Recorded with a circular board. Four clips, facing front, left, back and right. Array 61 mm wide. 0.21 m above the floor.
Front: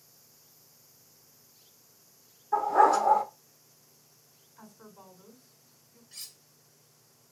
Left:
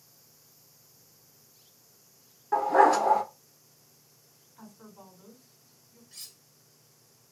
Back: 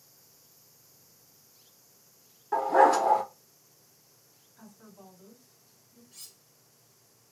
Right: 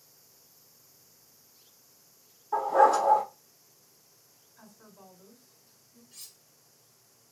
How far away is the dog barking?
About 1.4 m.